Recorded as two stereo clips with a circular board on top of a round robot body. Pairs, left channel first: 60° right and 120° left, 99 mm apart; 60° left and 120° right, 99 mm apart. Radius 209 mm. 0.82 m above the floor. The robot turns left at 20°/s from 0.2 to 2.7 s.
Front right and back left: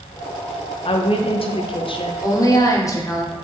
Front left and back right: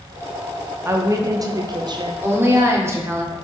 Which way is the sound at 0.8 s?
60° right.